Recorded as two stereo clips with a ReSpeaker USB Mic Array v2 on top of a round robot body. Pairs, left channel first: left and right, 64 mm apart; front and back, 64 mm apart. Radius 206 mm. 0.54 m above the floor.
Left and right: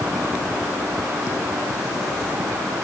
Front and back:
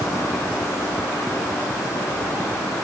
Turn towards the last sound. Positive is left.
No sound to turn to.